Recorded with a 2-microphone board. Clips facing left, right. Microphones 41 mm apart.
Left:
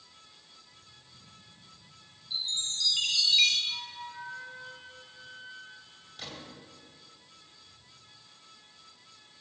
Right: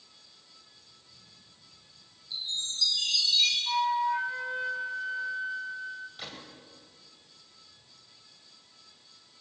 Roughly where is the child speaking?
No child speaking in this recording.